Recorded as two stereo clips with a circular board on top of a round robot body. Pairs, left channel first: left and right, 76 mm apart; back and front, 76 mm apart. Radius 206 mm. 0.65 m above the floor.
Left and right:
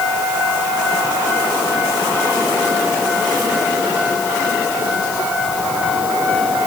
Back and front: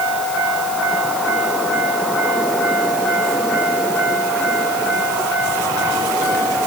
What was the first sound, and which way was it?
Only background noise.